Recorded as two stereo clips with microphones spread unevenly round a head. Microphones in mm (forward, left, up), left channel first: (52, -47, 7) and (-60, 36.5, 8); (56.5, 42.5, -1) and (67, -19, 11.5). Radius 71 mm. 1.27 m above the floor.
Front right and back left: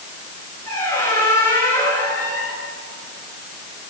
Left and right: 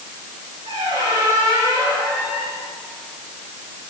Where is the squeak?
105° right, 9.5 m.